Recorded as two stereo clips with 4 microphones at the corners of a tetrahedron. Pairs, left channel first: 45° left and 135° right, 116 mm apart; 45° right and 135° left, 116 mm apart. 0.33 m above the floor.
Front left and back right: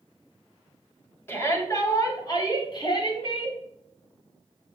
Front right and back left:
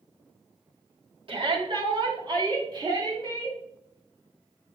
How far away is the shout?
About 2.5 m.